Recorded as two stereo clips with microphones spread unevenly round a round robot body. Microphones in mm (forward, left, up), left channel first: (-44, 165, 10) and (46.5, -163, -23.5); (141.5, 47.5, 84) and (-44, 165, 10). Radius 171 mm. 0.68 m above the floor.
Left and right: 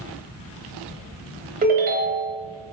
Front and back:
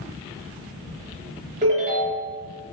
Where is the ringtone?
140° right, 0.9 m.